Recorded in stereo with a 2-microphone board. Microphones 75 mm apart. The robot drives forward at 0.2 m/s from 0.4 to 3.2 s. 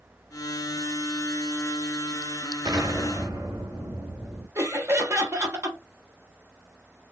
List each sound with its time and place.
2.6 s an explosion: 60° right (ahead or behind), 2.5 m
4.5 s laughter: 35° right (ahead or behind), 1.5 m